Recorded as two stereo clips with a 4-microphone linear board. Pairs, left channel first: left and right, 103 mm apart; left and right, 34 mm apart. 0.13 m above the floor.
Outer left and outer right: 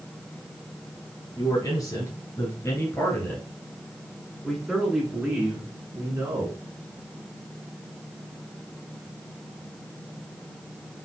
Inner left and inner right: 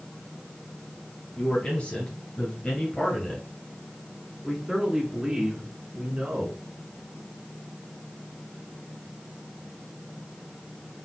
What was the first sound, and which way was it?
A man speaking, 45° left (ahead or behind).